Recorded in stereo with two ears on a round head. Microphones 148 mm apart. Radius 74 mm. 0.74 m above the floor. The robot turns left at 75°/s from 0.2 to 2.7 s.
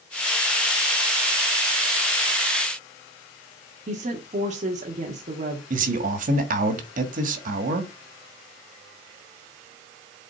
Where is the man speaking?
50° right (ahead or behind), 1.6 m.